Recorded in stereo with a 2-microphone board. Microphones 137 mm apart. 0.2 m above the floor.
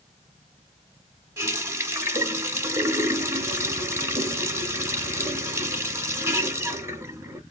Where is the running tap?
20° right (ahead or behind), 0.8 m.